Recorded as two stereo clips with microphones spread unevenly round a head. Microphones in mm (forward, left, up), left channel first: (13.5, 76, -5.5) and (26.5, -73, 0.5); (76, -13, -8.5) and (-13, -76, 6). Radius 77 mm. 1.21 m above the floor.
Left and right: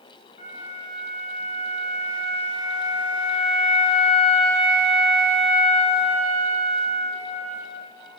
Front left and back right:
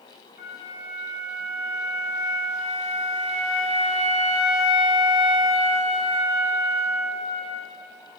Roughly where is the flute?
Ahead left.